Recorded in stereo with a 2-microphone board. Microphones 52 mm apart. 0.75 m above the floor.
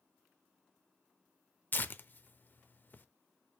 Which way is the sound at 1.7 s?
35° left (ahead or behind).